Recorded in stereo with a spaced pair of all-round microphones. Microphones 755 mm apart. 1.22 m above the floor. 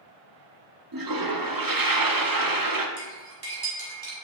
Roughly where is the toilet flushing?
Right.